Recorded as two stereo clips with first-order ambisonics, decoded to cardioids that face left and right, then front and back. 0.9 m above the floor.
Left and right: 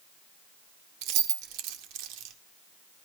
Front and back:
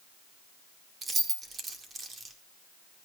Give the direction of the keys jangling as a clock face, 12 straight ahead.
4 o'clock.